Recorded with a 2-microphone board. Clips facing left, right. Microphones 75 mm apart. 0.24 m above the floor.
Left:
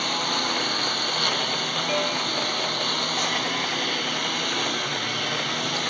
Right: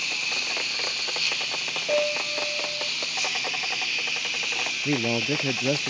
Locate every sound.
0.0 s a lawn mower: 55° left (ahead or behind)
1.9 s a piano: 15° right (ahead or behind)
4.8 s a man speaking: 75° right (ahead or behind)